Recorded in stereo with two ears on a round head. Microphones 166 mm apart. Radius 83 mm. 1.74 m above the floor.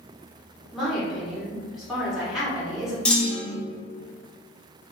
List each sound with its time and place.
0.7 s a woman speaking: centre (ahead or behind), 1.4 m
3.0 s a clunk: 5° left (ahead or behind), 0.8 m